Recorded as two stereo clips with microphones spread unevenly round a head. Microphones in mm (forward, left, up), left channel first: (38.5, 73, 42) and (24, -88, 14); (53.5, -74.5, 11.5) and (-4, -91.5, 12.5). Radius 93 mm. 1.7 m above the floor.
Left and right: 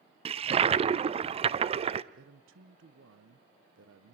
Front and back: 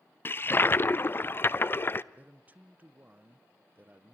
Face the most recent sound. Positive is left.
turn(degrees=-105)